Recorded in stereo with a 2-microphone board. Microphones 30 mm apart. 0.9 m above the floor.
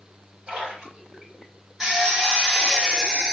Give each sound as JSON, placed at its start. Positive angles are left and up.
{"t": 0.5, "sound": "a splash", "side_deg": -25, "distance_m": 3.5}
{"t": 1.8, "sound": "a drill", "side_deg": -20, "distance_m": 2.5}